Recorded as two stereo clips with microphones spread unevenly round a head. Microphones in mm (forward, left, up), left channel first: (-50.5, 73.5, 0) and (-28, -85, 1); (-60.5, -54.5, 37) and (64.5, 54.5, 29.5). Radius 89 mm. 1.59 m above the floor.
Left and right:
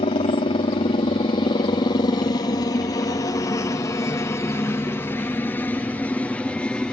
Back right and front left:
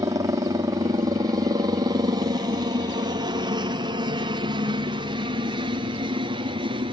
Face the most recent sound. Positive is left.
turn(degrees=20)